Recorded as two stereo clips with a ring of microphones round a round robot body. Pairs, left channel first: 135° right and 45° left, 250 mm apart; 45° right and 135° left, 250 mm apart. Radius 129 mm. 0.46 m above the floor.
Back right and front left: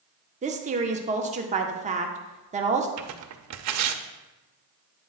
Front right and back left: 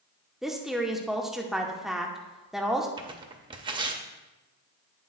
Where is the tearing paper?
65° left, 0.6 m.